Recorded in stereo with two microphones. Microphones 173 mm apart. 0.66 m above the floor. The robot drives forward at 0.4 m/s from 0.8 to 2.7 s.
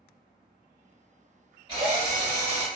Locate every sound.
1.7 s a drill: 25° right (ahead or behind), 1.5 m; by 2.7 s 30° right (ahead or behind), 1.3 m